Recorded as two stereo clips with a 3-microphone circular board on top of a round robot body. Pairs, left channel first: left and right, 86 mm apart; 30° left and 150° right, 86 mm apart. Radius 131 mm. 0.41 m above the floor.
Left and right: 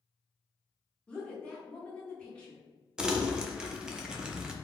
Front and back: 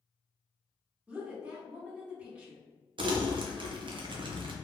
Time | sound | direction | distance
1.1 | a woman speaking | 155° left | 1.2 m
3.0 | crumpling | 170° right | 0.5 m